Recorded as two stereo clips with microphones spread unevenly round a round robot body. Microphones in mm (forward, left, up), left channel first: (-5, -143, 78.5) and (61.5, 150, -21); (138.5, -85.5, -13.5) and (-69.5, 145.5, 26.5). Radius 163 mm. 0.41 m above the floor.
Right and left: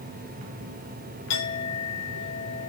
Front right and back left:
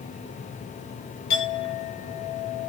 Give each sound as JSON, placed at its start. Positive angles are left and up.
{"t": 1.3, "sound": "a clink", "azimuth_deg": -65, "distance_m": 6.0}